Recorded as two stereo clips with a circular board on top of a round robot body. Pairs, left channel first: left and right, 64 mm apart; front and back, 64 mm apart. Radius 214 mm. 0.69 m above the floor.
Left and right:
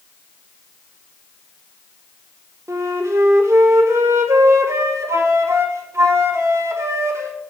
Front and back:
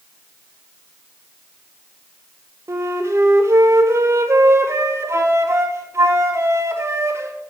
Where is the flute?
135° right, 1.5 m.